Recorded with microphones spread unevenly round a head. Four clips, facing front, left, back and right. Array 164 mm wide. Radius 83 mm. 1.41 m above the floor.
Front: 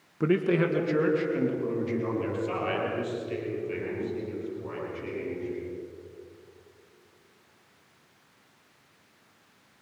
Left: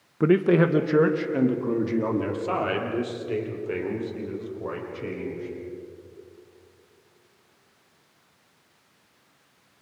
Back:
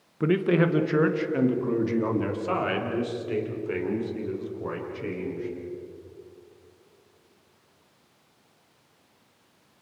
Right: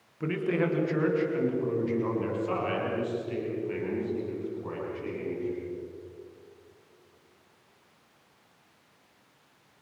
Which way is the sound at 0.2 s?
80° left.